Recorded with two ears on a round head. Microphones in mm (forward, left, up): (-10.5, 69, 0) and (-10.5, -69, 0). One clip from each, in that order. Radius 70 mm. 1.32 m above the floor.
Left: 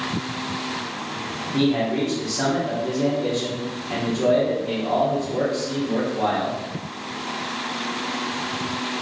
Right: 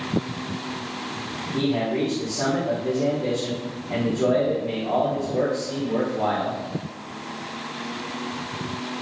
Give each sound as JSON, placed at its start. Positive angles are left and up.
{"t": 1.5, "sound": "a man speaking", "side_deg": 75, "distance_m": 1.5}